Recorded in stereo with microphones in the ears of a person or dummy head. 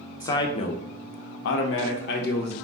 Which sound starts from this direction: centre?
A man speaking, at 0.2 s.